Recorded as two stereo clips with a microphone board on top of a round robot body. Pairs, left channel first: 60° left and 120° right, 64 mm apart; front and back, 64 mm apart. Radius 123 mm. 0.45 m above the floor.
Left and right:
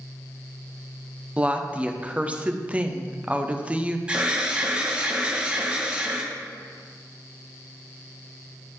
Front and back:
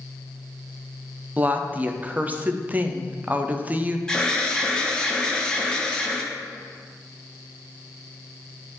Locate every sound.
1.4 s a woman speaking: 160° right, 0.7 m
4.1 s an alarm: 65° right, 1.2 m